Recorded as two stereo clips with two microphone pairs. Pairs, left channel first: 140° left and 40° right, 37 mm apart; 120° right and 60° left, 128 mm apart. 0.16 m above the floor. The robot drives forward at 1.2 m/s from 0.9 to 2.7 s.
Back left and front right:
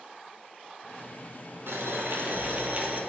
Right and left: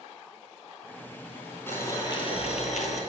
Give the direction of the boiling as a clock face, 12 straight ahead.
2 o'clock.